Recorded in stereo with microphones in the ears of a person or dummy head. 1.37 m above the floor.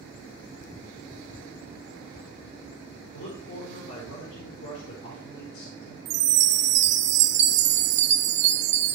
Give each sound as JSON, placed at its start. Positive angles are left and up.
{"t": 3.1, "sound": "a man speaking", "side_deg": 75, "distance_m": 4.5}
{"t": 6.0, "sound": "a chime", "side_deg": -40, "distance_m": 0.5}